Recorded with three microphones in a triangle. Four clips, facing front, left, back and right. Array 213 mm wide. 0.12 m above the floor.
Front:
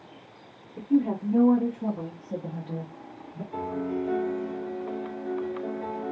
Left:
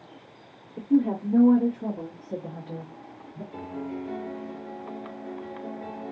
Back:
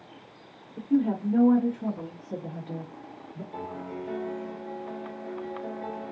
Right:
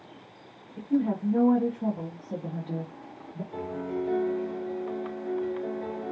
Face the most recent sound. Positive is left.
turn(degrees=-50)